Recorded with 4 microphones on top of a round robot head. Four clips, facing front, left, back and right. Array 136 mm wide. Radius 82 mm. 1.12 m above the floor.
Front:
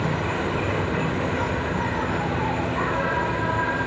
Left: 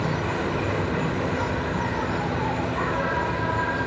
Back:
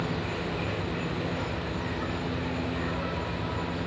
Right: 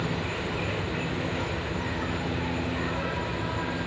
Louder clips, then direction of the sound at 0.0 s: Left 5 dB, front 6 dB; 35° left.